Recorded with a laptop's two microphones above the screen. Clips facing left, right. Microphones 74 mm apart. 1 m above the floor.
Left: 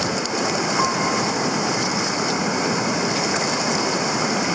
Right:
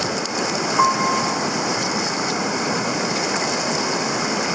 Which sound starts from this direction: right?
A piano, at 0.8 s.